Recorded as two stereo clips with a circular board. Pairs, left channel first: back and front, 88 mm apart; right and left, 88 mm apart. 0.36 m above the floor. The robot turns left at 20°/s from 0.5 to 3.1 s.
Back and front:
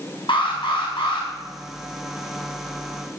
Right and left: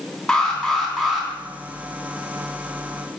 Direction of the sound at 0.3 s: 175° right.